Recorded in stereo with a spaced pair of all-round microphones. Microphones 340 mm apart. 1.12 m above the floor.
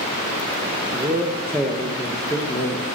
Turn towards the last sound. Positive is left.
turn(degrees=20)  # may be behind; listen again after turning